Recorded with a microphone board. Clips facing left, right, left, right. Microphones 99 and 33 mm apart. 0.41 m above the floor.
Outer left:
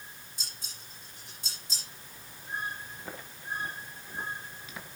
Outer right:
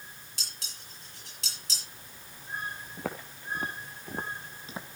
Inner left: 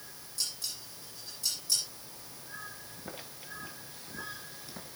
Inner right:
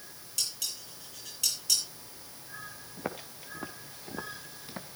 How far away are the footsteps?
About 3 m.